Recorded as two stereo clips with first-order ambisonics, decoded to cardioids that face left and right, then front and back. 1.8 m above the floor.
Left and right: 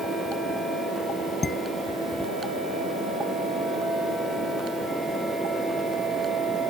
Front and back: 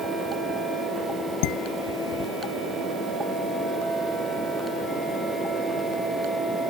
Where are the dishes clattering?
15° left.